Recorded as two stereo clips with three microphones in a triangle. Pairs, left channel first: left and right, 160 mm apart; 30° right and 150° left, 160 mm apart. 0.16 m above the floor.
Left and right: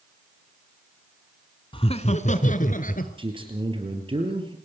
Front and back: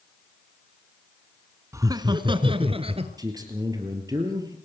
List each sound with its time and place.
1.7 s laughter: 95° left, 1.3 m; by 3.1 s 105° left, 2.5 m
3.2 s a man speaking: 145° right, 3.5 m